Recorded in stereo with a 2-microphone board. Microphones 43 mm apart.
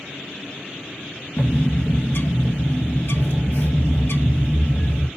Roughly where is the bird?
Left.